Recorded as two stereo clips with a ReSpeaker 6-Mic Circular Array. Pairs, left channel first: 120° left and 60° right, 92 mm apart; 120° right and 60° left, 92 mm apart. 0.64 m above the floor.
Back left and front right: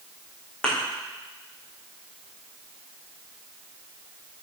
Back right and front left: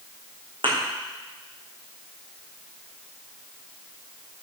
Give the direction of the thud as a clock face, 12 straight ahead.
11 o'clock.